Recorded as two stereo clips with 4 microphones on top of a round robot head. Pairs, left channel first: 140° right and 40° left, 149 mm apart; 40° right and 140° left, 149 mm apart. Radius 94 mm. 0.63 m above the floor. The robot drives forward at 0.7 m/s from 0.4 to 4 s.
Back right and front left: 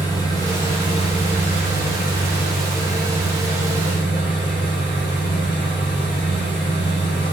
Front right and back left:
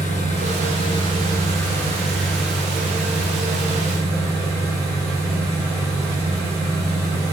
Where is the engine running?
80° right, 1.5 m; by 7.3 s 150° right, 2.5 m.